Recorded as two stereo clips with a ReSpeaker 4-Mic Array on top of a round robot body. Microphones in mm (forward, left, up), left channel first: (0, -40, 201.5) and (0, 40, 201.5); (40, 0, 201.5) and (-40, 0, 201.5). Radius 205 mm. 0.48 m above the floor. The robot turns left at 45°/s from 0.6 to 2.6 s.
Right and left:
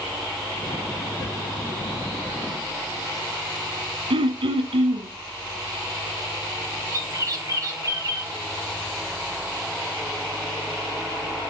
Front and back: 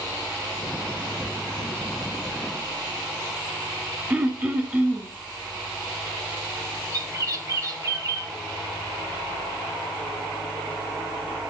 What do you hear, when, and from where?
4.1 s throat clearing: 105° left, 1.0 m
6.9 s a bird: 135° left, 2.5 m